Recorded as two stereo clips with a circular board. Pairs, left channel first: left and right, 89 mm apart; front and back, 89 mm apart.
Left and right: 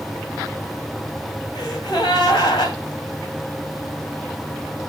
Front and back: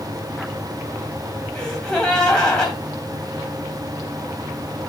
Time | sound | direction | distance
1.6 | a gasp | 80° left | 2.5 m